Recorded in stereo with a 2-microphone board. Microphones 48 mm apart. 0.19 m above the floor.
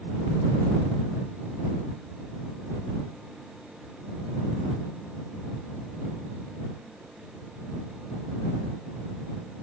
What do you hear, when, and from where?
Only background noise.